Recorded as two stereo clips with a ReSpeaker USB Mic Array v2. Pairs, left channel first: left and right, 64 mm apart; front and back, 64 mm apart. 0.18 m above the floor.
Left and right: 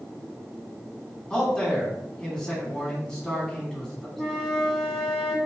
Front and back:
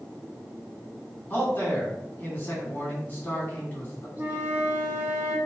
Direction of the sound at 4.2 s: 175° left.